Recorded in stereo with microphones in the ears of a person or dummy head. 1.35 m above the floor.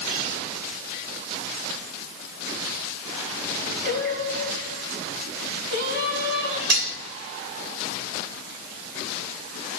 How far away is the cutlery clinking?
About 3.5 m.